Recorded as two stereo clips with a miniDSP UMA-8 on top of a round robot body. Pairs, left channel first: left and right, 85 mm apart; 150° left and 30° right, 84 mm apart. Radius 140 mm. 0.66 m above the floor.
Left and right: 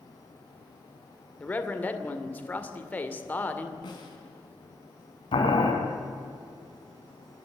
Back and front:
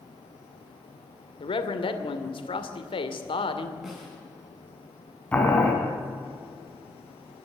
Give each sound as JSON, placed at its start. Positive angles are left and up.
{"t": 1.4, "sound": "a man speaking", "azimuth_deg": 160, "distance_m": 2.5}
{"t": 3.8, "sound": "a snare drum", "azimuth_deg": 55, "distance_m": 5.0}
{"t": 5.3, "sound": "boiling", "azimuth_deg": 75, "distance_m": 3.5}